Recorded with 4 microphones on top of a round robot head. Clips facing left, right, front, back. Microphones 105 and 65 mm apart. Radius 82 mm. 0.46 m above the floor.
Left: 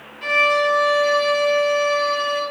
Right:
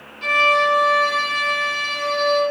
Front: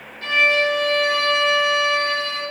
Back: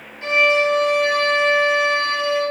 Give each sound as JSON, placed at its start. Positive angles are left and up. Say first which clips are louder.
{"t": 0.2, "sound": "a violin", "louder": "right 1 dB, back 2 dB", "azimuth_deg": -125, "distance_m": 0.9}